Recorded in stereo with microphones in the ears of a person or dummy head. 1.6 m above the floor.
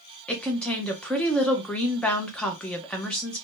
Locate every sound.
0.3 s a woman speaking: 5° left (ahead or behind), 0.6 m